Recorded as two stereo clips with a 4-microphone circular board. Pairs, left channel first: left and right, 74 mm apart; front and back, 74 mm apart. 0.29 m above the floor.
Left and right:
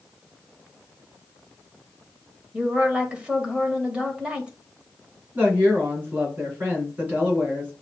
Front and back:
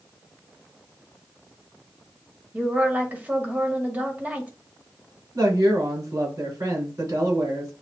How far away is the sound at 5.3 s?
About 3 m.